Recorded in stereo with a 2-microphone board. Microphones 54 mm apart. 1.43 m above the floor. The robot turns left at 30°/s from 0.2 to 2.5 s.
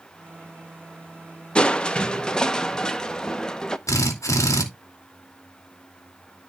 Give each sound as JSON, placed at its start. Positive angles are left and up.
{"t": 1.6, "sound": "crushing", "side_deg": 20, "distance_m": 0.7}
{"t": 3.9, "sound": "a drill", "side_deg": 75, "distance_m": 2.5}